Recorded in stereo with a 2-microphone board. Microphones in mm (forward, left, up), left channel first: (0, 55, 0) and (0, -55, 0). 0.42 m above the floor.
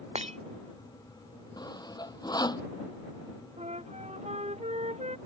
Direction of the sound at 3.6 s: 75° right (ahead or behind).